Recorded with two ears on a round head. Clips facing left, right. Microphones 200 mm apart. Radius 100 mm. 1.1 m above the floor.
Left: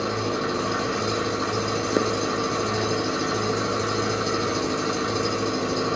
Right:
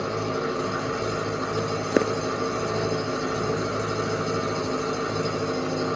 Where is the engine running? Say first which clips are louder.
Left 1 dB; 60° left (ahead or behind), 1.0 m.